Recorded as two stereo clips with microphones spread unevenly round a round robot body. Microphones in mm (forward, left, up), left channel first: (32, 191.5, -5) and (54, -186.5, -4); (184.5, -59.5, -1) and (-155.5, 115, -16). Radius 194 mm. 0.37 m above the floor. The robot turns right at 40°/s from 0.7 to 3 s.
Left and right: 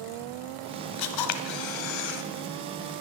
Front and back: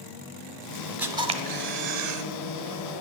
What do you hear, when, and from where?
1.0 s a camera shutter: 65° left, 1.1 m; by 2.2 s 115° left, 1.1 m